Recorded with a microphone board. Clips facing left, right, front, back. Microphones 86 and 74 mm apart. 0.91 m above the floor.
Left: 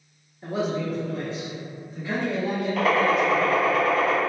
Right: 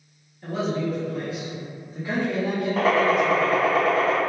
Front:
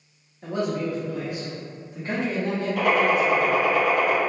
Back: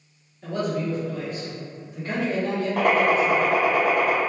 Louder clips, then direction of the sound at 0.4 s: Right 1 dB, even; 40° left.